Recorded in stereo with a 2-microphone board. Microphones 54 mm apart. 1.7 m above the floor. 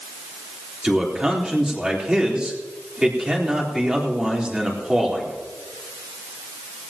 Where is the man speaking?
15° right (ahead or behind), 3.5 m.